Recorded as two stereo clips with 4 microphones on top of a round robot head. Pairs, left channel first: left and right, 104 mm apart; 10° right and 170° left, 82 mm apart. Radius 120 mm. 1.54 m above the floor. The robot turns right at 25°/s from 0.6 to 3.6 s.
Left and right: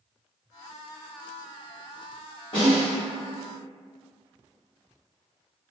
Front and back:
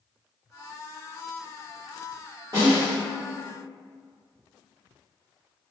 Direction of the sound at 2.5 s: 130° left.